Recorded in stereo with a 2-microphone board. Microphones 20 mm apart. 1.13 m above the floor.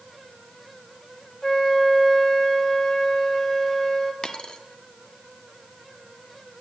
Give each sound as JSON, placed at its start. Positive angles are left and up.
{"t": 1.4, "sound": "a flute", "side_deg": 20, "distance_m": 1.5}
{"t": 4.2, "sound": "a dropped coin", "side_deg": 50, "distance_m": 0.8}